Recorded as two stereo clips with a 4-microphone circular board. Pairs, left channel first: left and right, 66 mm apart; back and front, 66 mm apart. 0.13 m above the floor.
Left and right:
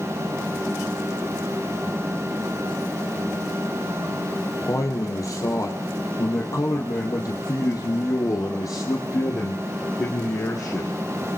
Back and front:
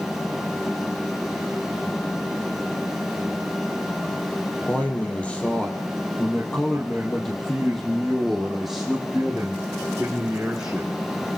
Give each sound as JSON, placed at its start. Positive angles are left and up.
{"t": 4.7, "sound": "a man speaking", "azimuth_deg": 115, "distance_m": 3.5}